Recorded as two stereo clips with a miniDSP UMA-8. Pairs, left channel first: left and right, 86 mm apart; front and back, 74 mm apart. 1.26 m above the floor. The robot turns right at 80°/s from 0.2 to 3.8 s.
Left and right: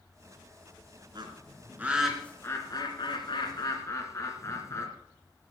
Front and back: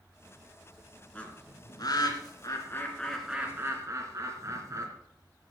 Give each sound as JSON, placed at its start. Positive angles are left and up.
{"t": 1.1, "sound": "a bird", "azimuth_deg": -75, "distance_m": 2.5}